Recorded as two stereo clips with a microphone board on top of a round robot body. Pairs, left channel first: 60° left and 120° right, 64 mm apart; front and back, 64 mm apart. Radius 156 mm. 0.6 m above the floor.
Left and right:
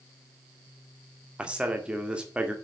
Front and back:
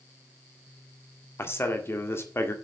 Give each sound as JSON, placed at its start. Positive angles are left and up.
{"t": 1.4, "sound": "a man speaking", "azimuth_deg": -50, "distance_m": 2.0}